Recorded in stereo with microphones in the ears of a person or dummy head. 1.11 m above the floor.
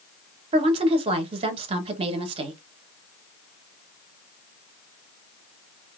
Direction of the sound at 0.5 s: 35° right (ahead or behind).